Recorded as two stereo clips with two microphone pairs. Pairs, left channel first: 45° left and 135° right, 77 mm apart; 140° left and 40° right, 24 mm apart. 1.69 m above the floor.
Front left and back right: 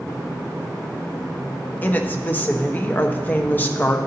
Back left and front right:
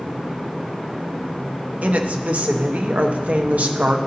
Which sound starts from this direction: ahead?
A woman speaking, at 1.8 s.